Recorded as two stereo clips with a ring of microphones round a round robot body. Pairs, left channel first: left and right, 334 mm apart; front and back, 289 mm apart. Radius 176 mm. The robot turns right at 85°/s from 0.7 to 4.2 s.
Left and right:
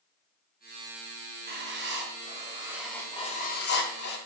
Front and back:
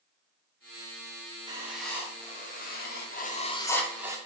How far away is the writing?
About 0.7 m.